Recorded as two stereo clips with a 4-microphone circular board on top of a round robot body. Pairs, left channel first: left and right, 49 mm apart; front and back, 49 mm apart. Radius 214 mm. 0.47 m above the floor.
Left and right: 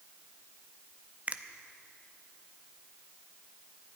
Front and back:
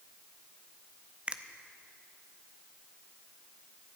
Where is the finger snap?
130° right, 1.0 m.